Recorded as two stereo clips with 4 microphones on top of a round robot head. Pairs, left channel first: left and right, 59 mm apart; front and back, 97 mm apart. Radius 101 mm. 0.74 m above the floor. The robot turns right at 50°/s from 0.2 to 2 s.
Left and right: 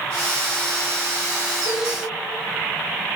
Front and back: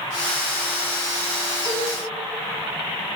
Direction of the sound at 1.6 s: 120° left.